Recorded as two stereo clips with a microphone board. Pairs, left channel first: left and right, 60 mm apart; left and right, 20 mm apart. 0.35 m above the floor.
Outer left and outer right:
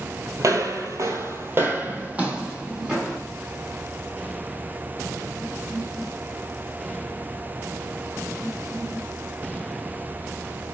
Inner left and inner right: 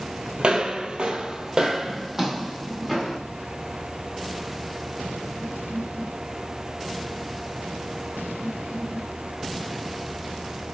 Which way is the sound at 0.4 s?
65° right (ahead or behind).